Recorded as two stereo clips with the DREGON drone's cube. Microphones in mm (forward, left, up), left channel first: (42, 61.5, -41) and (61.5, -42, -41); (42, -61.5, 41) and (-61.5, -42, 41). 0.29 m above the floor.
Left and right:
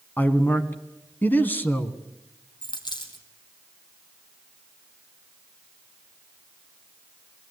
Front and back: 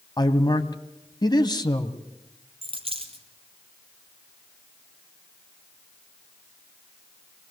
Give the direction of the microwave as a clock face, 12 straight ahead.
No microwave in this recording.